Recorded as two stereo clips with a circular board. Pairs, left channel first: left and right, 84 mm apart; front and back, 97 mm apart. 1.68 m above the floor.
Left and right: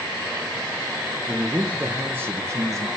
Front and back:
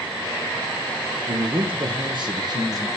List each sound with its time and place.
1.3 s a man speaking: 175° right, 1.5 m; by 2.9 s 135° right, 1.4 m